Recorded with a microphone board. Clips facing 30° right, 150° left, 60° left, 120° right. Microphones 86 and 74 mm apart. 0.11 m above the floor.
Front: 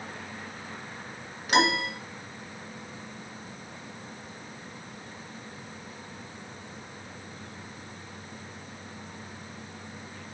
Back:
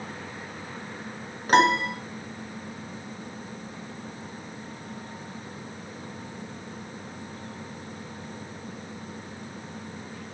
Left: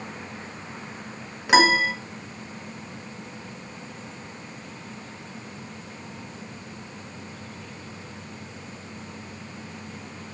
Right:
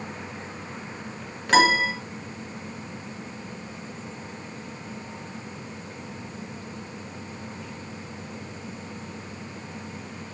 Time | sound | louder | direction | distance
1.5 | a piano | back 5 dB, left 1 dB | 140° left | 1.9 m